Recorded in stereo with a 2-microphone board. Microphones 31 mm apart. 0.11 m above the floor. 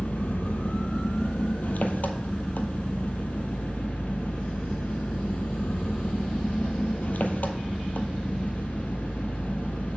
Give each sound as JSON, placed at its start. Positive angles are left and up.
{"t": 0.0, "sound": "an engine running", "side_deg": 65, "distance_m": 0.9}